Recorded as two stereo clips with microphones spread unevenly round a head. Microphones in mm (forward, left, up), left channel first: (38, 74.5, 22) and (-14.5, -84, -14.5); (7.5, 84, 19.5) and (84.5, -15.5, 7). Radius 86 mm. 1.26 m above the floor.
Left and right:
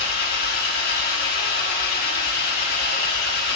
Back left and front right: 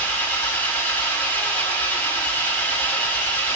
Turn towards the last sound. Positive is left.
turn(degrees=55)